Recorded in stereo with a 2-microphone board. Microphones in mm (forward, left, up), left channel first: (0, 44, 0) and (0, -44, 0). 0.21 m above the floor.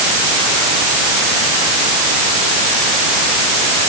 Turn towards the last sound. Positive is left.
No sound to turn to.